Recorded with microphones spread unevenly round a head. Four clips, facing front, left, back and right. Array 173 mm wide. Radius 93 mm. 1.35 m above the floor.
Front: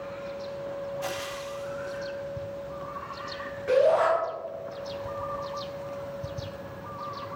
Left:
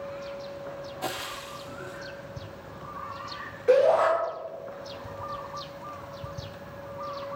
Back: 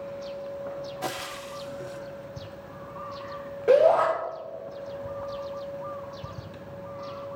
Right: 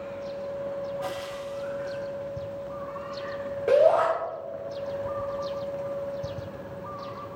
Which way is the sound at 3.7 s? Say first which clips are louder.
Even, back 3 dB; 130° right.